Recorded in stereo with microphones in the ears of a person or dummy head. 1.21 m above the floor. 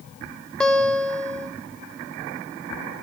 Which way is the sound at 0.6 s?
5° left (ahead or behind).